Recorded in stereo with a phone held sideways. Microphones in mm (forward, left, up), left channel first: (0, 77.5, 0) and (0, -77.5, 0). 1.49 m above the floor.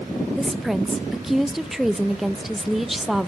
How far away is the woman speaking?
About 0.7 m.